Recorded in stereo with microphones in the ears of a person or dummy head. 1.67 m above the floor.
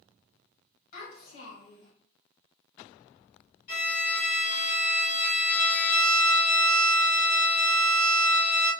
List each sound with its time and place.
0.9 s a child speaking: 55° left (ahead or behind), 2.0 m
3.7 s a violin: 55° left (ahead or behind), 1.6 m